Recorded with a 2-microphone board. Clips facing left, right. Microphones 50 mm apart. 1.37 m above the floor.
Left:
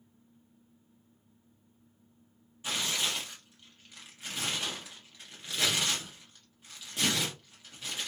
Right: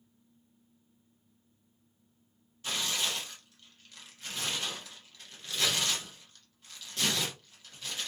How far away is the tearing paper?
About 1.0 m.